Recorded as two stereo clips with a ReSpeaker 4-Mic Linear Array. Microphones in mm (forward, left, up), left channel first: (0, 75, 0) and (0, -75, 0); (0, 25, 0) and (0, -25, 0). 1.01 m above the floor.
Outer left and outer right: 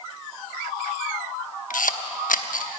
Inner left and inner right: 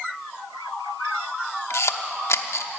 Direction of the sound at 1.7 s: 65° left (ahead or behind).